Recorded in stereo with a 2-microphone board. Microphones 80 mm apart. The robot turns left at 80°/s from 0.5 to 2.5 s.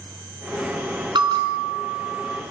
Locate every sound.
1.1 s a bell: 75° right, 3.5 m; by 2.3 s 165° right, 3.5 m